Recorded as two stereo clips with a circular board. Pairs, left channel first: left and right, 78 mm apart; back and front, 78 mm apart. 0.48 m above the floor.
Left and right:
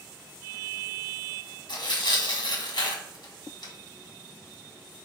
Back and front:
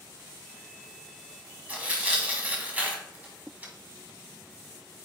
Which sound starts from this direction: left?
Tearing paper, at 1.7 s.